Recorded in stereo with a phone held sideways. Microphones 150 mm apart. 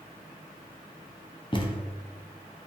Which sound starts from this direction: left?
A thud, at 1.5 s.